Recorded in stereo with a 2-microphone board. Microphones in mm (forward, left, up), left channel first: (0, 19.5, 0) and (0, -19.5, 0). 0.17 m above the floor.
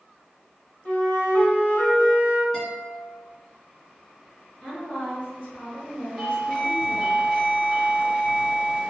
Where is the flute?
45° left (ahead or behind), 0.9 m.